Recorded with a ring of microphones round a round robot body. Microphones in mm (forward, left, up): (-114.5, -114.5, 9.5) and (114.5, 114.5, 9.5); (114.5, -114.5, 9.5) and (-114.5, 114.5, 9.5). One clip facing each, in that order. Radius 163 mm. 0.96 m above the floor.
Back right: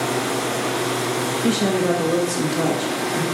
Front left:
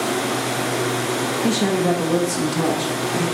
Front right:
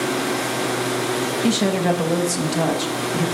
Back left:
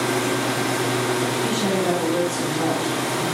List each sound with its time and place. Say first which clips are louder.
1.4 s a woman speaking: even, front right 5 dB; 40° right, 1.3 m